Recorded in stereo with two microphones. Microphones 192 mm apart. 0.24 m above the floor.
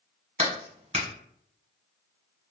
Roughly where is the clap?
Right.